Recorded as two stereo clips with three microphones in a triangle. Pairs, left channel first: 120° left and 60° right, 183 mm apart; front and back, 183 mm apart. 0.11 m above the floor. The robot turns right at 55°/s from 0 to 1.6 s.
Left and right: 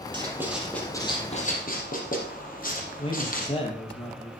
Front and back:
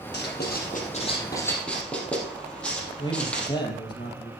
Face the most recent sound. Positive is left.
turn(degrees=65)